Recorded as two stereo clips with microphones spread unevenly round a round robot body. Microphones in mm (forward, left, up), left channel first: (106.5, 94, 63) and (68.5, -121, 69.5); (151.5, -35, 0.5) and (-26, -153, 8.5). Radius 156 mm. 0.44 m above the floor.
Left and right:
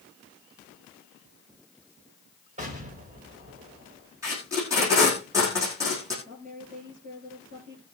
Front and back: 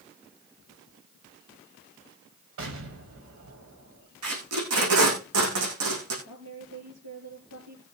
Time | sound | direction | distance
2.6 | an explosion | 160° right | 3 m
4.2 | tape being pulled | straight behind | 4.5 m
6.2 | a woman speaking | 160° right | 7.5 m